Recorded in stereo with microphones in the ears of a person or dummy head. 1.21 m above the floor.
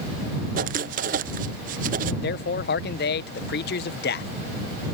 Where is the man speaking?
50° left (ahead or behind).